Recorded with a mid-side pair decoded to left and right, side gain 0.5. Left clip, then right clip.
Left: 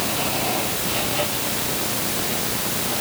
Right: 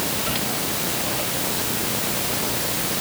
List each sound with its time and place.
Only background noise.